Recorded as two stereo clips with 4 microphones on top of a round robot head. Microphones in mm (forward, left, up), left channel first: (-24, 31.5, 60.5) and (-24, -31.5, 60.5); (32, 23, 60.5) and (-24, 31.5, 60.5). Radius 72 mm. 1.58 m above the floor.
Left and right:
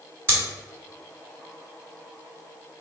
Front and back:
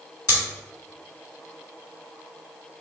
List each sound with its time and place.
0.3 s scissors: 35° right, 1.6 m